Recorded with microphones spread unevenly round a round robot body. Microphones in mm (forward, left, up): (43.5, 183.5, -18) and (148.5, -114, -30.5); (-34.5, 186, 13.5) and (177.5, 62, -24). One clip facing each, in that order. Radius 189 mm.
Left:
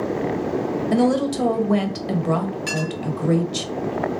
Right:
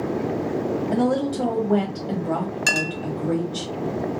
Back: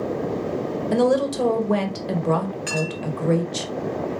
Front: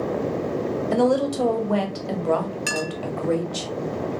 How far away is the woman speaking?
About 1.2 m.